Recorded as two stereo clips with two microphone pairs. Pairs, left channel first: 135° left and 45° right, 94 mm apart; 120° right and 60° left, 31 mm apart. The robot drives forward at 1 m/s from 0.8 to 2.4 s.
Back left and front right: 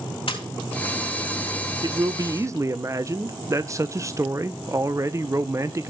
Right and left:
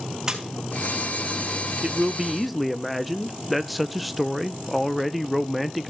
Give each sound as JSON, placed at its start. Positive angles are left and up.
{"t": 0.3, "sound": "a splash", "azimuth_deg": 125, "distance_m": 4.0}
{"t": 1.8, "sound": "a man speaking", "azimuth_deg": -10, "distance_m": 0.9}